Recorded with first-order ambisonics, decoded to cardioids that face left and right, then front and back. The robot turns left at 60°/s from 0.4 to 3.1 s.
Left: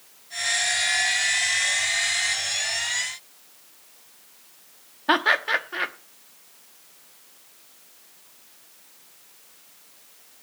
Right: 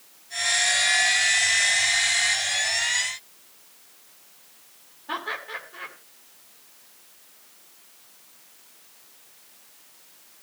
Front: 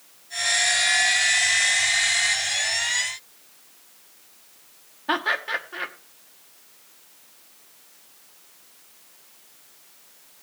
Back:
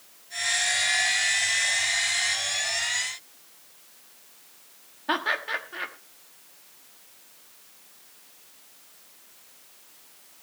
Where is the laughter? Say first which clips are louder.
Left 11 dB, front 2 dB; 85° left, 1.1 m.